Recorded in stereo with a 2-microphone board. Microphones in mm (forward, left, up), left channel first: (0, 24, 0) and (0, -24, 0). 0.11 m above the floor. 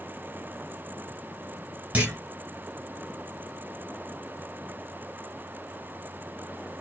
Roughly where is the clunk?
Right.